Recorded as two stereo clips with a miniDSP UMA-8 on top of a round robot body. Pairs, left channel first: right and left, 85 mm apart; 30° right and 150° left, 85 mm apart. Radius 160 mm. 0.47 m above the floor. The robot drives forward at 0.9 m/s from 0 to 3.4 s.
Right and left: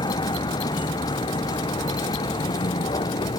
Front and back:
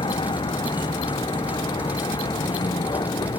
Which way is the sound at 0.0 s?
60° right.